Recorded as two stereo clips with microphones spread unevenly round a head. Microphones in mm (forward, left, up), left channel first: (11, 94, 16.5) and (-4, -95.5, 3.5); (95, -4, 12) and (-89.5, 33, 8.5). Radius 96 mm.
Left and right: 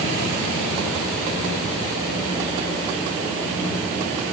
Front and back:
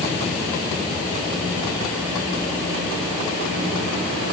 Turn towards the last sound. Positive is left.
No sound to turn to.